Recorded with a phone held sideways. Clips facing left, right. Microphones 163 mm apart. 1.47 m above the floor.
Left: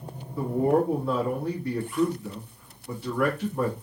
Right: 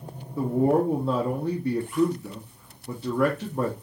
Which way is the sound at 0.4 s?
25° right (ahead or behind).